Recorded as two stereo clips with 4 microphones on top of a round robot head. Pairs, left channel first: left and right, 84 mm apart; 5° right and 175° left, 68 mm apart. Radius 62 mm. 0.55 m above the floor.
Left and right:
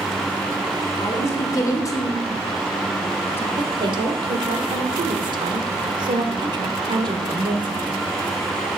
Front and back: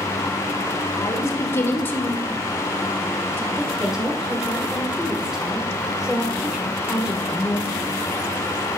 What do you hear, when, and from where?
0.9 s a woman speaking: 35° left, 2.5 m; by 3.5 s 145° left, 1.3 m
3.6 s a woman speaking: 100° right, 1.4 m